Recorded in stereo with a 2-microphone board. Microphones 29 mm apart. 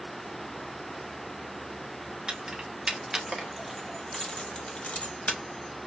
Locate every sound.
2.3 s keys jangling: 25° right (ahead or behind), 1.6 m; by 5.4 s 60° left (ahead or behind), 1.0 m